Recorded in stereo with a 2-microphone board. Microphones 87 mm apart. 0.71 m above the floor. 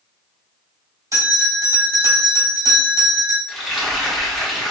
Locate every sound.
1.1 s a bell: 40° right (ahead or behind), 1.9 m
3.5 s frying: 5° left (ahead or behind), 1.1 m